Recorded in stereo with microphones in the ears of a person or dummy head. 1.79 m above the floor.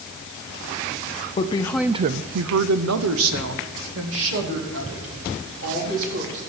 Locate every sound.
1.4 s a woman speaking: 35° left (ahead or behind), 0.8 m; by 6.4 s 70° right (ahead or behind), 5 m